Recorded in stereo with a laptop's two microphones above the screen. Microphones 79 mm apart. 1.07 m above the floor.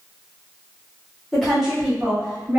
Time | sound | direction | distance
1.3 | a woman speaking | 5° left (ahead or behind) | 1.0 m